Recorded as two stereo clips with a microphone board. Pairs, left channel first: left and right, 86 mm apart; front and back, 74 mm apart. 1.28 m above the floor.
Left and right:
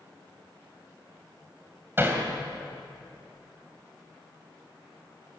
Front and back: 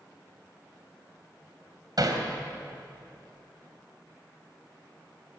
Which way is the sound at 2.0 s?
150° right.